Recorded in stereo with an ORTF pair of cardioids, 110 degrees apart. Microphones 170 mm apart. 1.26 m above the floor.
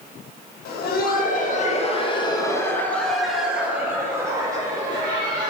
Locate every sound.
0.7 s laughter: 70° left, 1.4 m; by 5.5 s 30° right, 2.5 m